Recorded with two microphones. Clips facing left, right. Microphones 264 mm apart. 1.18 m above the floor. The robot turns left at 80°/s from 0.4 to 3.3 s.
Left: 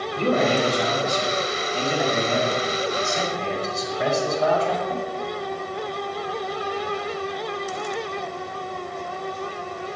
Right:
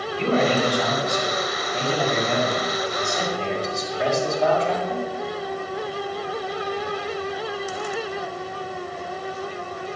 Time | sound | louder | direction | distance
0.1 | a man speaking | even | 50° left | 7 m